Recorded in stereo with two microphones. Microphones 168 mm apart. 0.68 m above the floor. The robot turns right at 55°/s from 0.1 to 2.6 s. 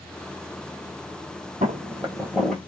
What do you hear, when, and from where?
1.6 s footsteps: 50° right (ahead or behind), 1.1 m; by 2.7 s 10° left (ahead or behind), 0.7 m